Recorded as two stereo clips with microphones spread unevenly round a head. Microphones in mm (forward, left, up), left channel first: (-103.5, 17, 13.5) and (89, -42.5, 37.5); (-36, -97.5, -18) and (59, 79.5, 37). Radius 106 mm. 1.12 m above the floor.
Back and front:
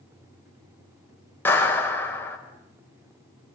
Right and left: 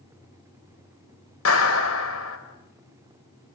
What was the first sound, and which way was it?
A clap, 115° right.